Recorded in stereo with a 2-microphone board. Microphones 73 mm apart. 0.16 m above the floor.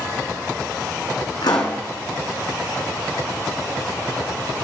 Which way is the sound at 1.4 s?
70° left (ahead or behind).